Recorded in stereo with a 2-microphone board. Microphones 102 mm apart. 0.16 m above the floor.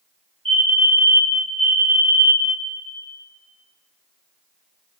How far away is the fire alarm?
About 2 m.